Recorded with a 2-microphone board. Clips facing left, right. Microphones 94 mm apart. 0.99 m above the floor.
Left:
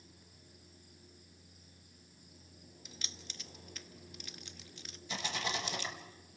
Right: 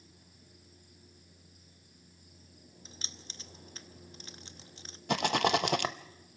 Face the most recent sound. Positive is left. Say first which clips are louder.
# right 11 dB
turn(degrees=-65)  # may be behind; listen again after turning